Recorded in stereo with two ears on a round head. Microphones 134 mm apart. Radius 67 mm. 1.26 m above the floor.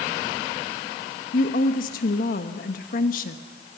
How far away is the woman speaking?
About 1.4 m.